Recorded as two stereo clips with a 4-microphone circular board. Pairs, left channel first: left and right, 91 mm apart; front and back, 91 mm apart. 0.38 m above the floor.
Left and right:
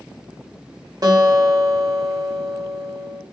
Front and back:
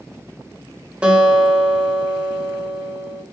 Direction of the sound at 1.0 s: 105° right.